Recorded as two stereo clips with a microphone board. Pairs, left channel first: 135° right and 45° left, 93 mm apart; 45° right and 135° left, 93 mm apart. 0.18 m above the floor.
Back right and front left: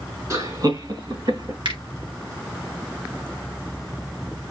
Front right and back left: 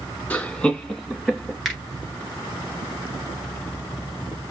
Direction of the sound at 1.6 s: 45° left.